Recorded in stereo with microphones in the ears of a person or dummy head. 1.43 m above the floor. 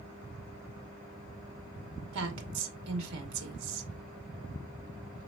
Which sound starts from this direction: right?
A woman speaking, at 2.1 s.